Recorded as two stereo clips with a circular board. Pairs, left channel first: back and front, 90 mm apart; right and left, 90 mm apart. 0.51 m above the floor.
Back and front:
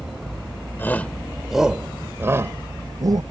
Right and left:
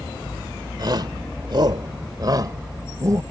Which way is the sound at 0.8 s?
120° left.